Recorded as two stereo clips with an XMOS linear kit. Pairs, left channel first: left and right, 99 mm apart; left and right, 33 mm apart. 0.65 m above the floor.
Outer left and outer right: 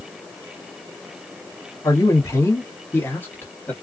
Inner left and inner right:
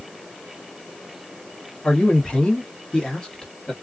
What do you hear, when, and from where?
1.8 s a man speaking: 30° left (ahead or behind), 1.2 m; by 3.7 s 20° left (ahead or behind), 1.4 m